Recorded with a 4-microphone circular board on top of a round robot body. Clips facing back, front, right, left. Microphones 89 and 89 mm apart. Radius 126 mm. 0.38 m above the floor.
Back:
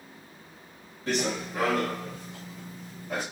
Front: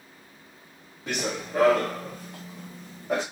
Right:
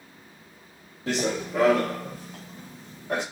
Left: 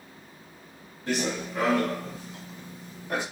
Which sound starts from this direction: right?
Running footsteps, at 1.1 s.